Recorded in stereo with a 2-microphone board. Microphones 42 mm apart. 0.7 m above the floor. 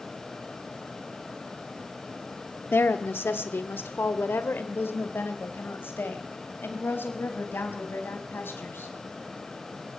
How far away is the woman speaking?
About 1.4 m.